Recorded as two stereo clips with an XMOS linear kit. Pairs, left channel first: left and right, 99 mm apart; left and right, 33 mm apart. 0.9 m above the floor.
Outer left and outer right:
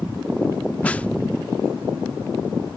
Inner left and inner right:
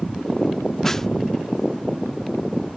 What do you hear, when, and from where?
0.8 s a snare drum: 15° left (ahead or behind)